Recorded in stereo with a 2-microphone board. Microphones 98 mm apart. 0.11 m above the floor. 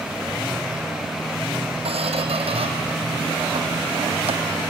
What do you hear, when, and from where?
1.9 s a squeak: 80° right, 1.7 m